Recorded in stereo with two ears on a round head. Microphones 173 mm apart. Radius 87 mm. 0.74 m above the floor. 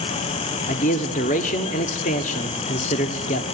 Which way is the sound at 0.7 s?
40° left (ahead or behind).